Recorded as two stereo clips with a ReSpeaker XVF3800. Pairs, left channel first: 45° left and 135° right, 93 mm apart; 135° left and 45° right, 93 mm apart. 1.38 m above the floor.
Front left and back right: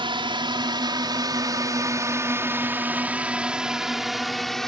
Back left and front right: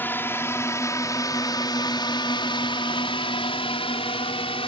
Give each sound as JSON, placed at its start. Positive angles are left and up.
{"t": 0.0, "sound": "a drone", "azimuth_deg": -155}